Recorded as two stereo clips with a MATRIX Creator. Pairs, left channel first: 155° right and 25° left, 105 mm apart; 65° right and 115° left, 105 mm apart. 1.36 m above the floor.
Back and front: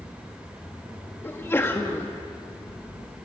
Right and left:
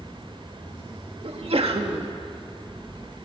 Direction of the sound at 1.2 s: 135° left.